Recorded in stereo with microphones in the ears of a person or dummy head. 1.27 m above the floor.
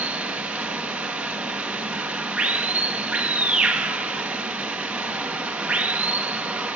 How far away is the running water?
About 1.1 m.